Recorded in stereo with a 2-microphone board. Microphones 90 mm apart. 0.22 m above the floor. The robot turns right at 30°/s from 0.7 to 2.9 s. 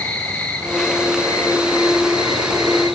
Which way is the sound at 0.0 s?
20° left.